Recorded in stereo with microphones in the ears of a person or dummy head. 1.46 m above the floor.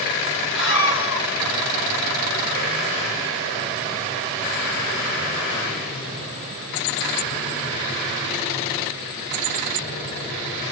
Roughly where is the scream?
Centre.